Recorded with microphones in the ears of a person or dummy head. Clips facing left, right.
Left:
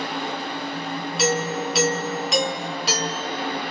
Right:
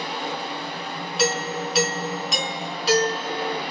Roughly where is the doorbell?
Centre.